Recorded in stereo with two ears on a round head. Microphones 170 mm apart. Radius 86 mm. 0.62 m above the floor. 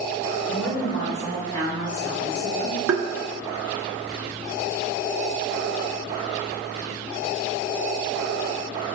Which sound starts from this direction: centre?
A woman speaking, at 0.5 s.